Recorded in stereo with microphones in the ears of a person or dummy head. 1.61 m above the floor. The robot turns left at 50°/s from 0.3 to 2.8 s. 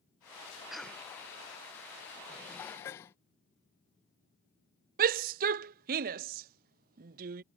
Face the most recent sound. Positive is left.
turn(degrees=-50)  # may be behind; listen again after turning